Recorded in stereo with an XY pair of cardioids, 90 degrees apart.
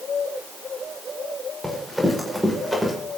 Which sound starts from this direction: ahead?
Running footsteps, at 1.6 s.